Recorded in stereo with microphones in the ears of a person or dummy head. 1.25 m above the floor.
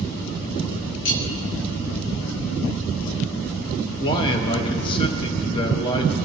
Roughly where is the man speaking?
Left.